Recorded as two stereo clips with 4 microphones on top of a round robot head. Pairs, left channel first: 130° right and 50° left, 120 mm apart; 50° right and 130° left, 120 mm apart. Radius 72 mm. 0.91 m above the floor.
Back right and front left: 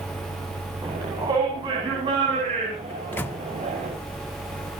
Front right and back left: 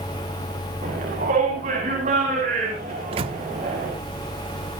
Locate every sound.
0.8 s a shout: 110° left, 7 m; by 3.9 s 95° left, 7 m
2.9 s a microwave: 160° left, 0.9 m